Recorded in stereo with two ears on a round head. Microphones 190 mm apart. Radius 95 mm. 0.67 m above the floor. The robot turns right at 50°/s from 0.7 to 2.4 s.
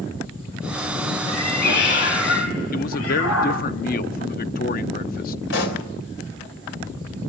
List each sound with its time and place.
1.3 s a cat meowing: 30° left, 7.5 m; by 3.6 s 90° left, 7.5 m
2.7 s a man speaking: 45° left (ahead or behind), 0.8 m
5.5 s a pop: 65° left (ahead or behind), 3.5 m